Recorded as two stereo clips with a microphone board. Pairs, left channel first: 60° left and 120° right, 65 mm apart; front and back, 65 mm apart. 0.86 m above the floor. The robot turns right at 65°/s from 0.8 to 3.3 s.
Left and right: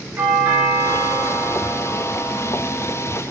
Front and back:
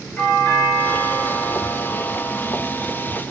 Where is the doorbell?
60° right, 5 m; by 3.2 s 95° left, 5 m.